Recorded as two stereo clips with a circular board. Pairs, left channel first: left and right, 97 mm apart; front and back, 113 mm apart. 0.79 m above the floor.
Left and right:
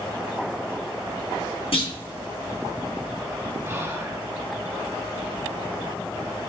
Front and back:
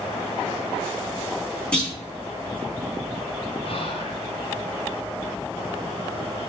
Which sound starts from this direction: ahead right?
Whispering, at 3.6 s.